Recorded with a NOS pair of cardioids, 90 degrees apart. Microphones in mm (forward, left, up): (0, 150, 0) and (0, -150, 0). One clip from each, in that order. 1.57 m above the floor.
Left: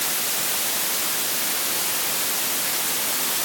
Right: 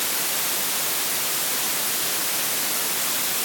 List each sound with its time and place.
Only background noise.